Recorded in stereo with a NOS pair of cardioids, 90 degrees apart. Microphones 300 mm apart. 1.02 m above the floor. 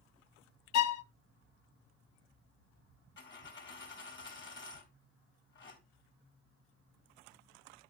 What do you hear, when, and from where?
0.7 s a violin: 60° left, 0.5 m
3.2 s a dropped coin: 40° left, 2.5 m